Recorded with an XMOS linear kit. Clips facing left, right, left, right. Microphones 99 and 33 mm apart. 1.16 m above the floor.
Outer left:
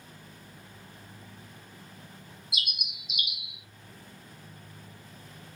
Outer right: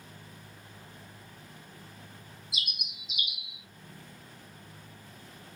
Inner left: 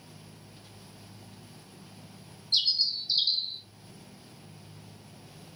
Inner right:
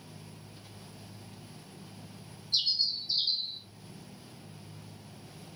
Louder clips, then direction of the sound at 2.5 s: Outer left 3 dB, inner left 3 dB; 70° left (ahead or behind).